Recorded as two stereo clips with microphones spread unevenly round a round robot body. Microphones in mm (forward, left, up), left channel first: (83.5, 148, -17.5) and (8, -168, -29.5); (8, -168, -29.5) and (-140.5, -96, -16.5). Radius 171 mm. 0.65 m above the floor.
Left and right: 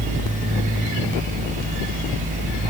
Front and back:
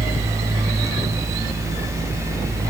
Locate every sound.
Only background noise.